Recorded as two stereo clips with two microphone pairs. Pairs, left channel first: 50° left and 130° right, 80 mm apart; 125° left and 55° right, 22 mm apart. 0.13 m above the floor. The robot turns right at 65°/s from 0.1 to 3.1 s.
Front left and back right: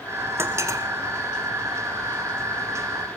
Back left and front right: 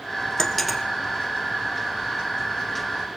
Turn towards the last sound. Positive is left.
turn(degrees=10)